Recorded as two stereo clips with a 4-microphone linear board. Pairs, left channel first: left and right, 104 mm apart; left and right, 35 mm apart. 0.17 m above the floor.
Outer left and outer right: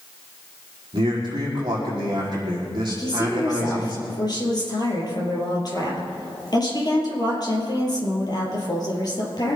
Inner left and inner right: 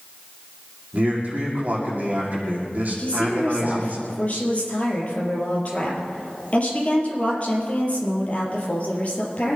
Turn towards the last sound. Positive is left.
turn(degrees=40)  # may be behind; listen again after turning